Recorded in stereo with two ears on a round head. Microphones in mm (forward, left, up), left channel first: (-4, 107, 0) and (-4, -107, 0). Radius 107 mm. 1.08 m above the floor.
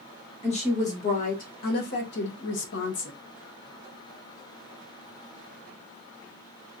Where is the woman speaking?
30° left (ahead or behind), 1.7 m; by 3.1 s 50° left (ahead or behind), 0.8 m.